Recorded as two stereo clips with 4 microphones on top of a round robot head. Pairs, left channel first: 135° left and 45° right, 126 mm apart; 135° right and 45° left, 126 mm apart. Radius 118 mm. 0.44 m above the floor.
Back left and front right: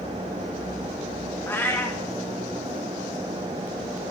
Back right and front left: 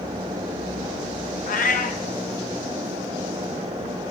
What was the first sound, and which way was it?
A cat meowing, 150° right.